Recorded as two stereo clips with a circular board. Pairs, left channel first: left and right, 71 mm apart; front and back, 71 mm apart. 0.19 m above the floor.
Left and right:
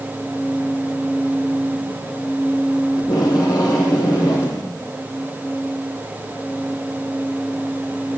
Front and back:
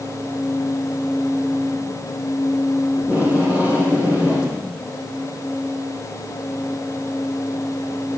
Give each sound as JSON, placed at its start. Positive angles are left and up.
{"t": 3.0, "sound": "tape being pulled", "azimuth_deg": 110, "distance_m": 4.5}